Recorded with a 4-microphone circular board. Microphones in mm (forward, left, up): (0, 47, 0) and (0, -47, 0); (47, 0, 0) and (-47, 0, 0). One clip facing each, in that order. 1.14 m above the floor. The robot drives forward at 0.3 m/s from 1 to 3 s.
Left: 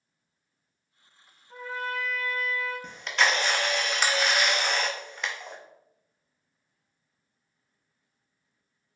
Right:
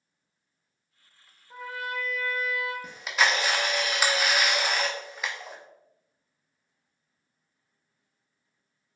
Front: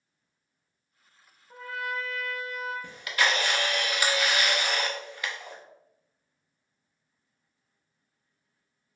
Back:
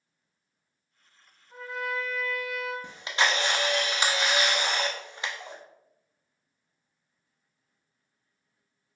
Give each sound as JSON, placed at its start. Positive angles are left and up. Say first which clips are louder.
{"t": 1.5, "sound": "a trumpet", "louder": "left 1 dB, back 1 dB", "azimuth_deg": -15, "distance_m": 1.2}
{"t": 2.8, "sound": "a camera shutter", "louder": "even, even", "azimuth_deg": -165, "distance_m": 0.5}